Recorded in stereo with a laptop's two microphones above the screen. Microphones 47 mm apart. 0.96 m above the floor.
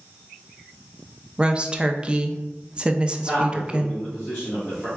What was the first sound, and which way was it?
A woman speaking, 20° right (ahead or behind).